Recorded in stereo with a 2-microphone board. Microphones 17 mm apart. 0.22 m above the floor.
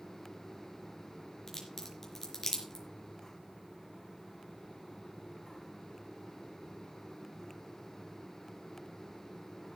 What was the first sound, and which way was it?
A crack, 30° left (ahead or behind).